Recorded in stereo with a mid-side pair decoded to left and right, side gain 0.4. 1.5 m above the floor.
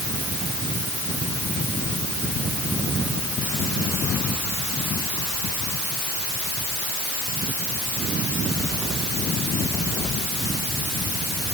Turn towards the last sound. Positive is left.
No sound to turn to.